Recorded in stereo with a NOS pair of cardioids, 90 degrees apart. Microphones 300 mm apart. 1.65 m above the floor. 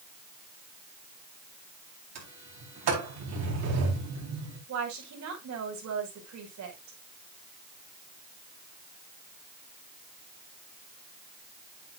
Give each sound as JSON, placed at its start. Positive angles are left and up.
{"t": 2.1, "sound": "a sliding door", "azimuth_deg": -65, "distance_m": 4.5}
{"t": 4.7, "sound": "a woman speaking", "azimuth_deg": -65, "distance_m": 5.5}